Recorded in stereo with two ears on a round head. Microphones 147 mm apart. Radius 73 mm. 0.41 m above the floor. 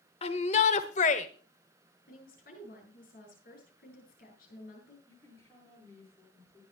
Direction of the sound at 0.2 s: 40° left (ahead or behind).